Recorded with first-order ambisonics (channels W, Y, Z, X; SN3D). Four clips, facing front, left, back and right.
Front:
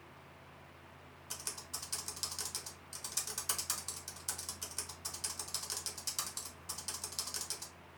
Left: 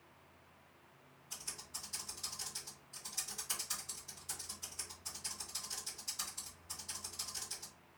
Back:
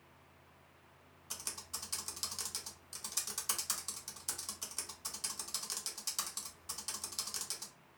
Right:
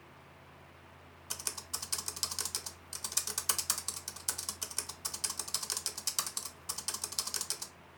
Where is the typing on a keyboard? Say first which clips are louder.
Right 7 dB, even; 90° right, 0.5 m.